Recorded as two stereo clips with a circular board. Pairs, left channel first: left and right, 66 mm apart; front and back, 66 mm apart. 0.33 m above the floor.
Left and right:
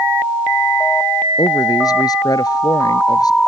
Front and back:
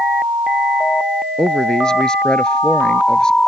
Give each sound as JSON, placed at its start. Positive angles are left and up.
{"t": 1.4, "sound": "a man speaking", "azimuth_deg": 80}